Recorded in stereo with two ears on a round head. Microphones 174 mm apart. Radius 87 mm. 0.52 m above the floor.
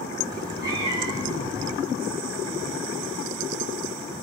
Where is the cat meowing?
20° right (ahead or behind), 5.5 m.